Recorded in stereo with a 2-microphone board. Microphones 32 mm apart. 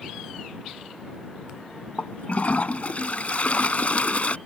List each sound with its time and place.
2.0 s a toilet flushing: 50° left (ahead or behind)